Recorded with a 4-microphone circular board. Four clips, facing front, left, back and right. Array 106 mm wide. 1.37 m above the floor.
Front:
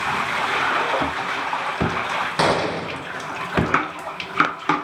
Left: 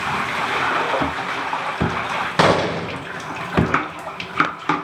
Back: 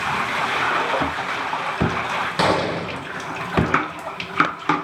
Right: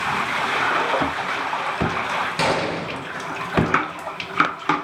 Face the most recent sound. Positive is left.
turn(degrees=85)